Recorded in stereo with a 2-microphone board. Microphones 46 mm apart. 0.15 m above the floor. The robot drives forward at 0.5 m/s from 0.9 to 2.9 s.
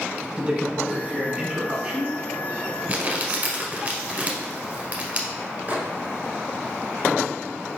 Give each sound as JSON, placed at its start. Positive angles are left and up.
{"t": 0.4, "sound": "a man speaking", "side_deg": -30, "distance_m": 1.1}
{"t": 2.9, "sound": "crumpling", "side_deg": -35, "distance_m": 1.0}
{"t": 5.7, "sound": "a microwave", "side_deg": -40, "distance_m": 1.6}